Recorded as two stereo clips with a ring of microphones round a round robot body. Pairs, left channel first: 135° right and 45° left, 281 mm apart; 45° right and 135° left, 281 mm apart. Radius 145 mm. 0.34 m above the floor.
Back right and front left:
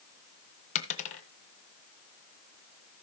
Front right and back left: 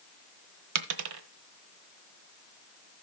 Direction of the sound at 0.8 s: 160° left.